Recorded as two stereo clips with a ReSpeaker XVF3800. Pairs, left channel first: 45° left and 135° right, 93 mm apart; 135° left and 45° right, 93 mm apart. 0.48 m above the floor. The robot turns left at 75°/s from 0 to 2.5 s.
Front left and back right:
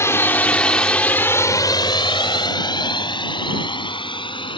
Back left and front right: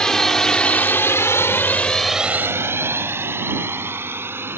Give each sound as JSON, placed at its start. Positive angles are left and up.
{"t": 0.0, "sound": "a drone", "azimuth_deg": 60}